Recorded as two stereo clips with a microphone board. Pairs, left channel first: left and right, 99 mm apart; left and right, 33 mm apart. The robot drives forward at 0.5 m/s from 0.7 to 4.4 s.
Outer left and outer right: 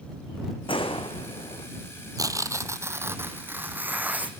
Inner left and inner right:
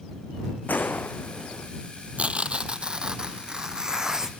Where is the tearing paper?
40° right (ahead or behind), 0.8 m; by 4.3 s 15° right (ahead or behind), 1.8 m.